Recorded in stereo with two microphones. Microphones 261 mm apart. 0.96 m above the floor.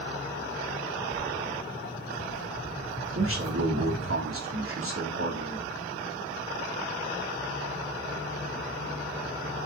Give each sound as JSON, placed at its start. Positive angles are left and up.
{"t": 1.1, "sound": "footsteps", "side_deg": 40, "distance_m": 1.2}
{"t": 3.1, "sound": "a man speaking", "side_deg": -50, "distance_m": 2.5}